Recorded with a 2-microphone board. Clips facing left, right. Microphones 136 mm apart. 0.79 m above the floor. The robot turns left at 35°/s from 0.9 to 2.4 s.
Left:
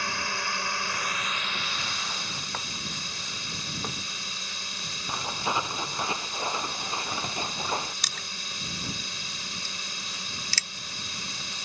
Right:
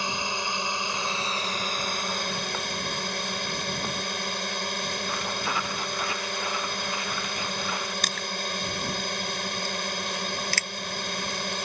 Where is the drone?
20° right; by 11.7 s 75° right.